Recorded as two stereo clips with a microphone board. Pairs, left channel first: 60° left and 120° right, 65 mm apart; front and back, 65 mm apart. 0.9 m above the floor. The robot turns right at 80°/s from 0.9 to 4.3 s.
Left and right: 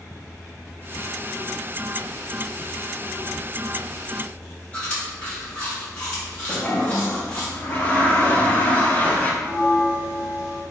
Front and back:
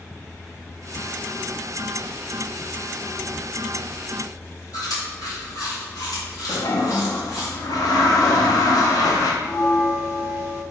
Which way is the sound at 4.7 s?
10° right.